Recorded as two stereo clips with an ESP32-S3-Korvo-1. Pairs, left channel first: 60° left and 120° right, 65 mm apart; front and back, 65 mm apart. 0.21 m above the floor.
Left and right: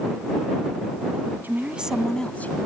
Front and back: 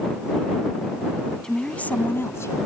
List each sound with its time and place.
1.4 s a woman speaking: 75° right; by 2.6 s 10° left